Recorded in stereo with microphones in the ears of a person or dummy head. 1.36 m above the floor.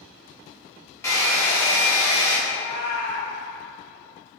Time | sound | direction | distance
1.0 | a hair dryer | 15° left (ahead or behind) | 0.7 m
2.5 | a cat meowing | 15° left (ahead or behind) | 1.8 m